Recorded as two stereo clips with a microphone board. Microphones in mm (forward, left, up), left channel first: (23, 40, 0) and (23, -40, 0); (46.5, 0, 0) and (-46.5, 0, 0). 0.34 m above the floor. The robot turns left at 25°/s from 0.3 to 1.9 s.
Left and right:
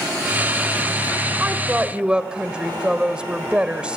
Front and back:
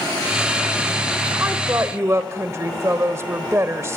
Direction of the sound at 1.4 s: 145° right.